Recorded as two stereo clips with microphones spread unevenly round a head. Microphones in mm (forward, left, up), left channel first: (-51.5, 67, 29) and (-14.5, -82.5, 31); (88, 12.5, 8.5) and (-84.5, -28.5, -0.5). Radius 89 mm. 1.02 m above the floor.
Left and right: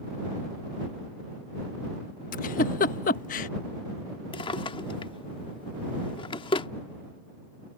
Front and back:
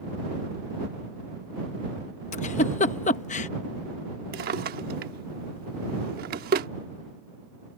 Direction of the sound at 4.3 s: 160° left.